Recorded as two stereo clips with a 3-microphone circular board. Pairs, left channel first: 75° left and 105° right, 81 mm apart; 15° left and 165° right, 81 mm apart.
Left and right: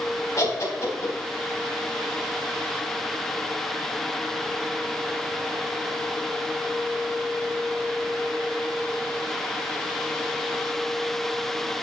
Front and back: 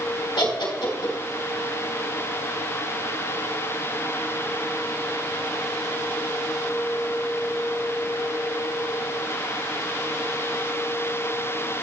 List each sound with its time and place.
0.4 s laughter: 25° left, 3 m